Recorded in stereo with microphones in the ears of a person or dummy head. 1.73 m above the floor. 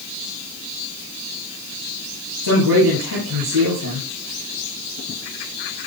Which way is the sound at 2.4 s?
80° right.